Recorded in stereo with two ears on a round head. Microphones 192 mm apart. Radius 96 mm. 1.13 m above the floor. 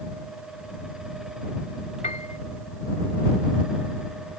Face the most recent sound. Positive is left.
turn(degrees=35)  # may be behind; listen again after turning